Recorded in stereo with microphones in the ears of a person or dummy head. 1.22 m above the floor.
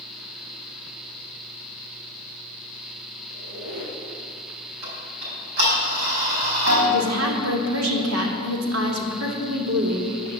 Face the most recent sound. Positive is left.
turn(degrees=-80)